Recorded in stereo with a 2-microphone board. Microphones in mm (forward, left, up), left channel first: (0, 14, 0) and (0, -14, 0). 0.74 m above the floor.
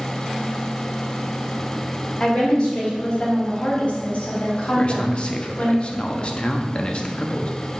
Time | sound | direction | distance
2.2 | a woman speaking | 35° left (ahead or behind) | 2.5 m
4.8 | a man speaking | 40° left (ahead or behind) | 0.8 m